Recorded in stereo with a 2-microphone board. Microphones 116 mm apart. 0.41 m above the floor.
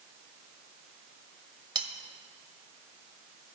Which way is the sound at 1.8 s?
40° right (ahead or behind).